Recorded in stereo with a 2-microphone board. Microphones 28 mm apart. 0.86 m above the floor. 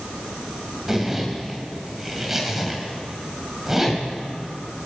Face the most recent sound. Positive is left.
turn(degrees=-15)  # may be behind; listen again after turning